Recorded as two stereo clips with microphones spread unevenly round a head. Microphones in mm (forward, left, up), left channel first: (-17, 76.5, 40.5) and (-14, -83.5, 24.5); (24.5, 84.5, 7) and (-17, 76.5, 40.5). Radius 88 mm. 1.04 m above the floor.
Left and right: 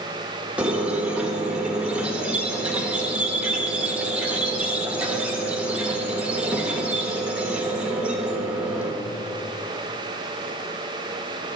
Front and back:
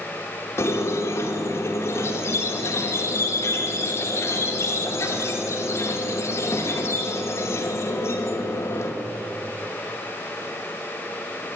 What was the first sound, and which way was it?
A squeak, 5° right.